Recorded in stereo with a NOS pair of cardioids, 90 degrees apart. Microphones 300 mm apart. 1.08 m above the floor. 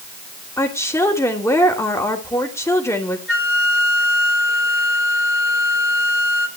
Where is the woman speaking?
10° left, 3 m.